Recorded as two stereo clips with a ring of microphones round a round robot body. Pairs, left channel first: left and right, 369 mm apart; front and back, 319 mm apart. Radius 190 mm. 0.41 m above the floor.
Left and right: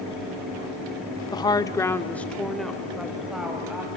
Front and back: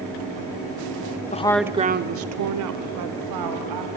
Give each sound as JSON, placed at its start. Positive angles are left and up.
{"t": 1.3, "sound": "a woman speaking", "azimuth_deg": 25, "distance_m": 0.8}